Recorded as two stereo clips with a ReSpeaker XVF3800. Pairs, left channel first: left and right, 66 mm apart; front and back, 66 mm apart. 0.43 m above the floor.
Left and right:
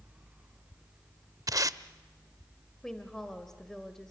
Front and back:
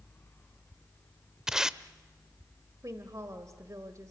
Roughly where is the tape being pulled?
Right.